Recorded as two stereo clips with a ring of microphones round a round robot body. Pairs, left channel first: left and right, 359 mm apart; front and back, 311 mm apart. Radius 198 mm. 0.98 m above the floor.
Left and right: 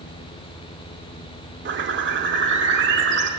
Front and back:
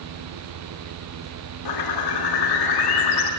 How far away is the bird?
About 1.8 m.